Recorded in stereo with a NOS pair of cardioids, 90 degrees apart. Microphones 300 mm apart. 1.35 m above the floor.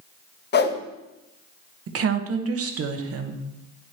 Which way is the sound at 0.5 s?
35° left.